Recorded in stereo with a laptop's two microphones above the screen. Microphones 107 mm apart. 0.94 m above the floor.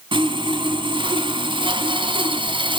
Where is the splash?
I don't hear a splash.